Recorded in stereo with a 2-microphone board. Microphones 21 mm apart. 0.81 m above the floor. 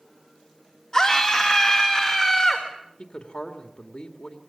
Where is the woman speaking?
50° left (ahead or behind), 2.5 m.